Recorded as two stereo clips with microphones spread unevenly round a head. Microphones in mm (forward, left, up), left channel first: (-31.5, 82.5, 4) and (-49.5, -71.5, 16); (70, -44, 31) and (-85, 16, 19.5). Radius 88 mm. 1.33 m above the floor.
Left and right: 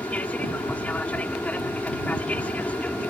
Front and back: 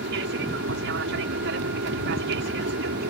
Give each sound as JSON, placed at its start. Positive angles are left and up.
{"t": 0.0, "sound": "an aircraft", "azimuth_deg": 165}